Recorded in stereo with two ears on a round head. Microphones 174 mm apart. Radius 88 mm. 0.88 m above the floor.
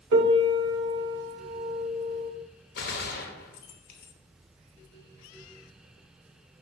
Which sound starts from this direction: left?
A gunshot, at 2.8 s.